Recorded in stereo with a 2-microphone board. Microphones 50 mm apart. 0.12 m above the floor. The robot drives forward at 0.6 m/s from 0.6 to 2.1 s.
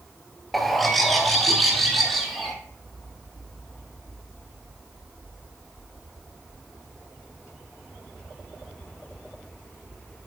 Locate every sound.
0.5 s a bird: centre (ahead or behind), 0.8 m